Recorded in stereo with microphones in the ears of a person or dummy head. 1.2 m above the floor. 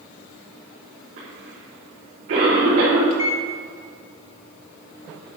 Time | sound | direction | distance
1.2 | a cough | 50° right (ahead or behind) | 5 m
3.1 | a microwave | 35° left (ahead or behind) | 2.5 m